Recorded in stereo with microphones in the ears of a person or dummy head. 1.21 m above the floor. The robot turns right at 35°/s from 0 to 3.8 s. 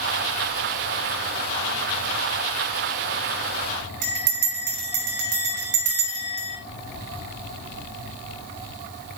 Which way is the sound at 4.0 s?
50° right (ahead or behind).